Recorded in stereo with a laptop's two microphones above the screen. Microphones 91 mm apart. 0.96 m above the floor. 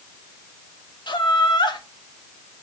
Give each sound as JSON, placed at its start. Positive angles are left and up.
{"t": 1.1, "sound": "laughter", "side_deg": 65, "distance_m": 1.4}